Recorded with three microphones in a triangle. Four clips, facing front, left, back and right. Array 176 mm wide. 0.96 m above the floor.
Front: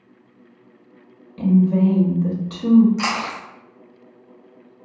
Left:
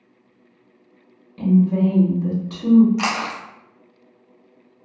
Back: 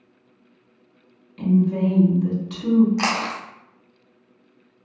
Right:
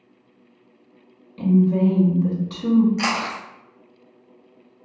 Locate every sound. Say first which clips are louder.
1.4 s a woman speaking: left 1 dB, front 3 dB; 10° left, 0.8 m
3.0 s chewing: even, even; 165° left, 0.5 m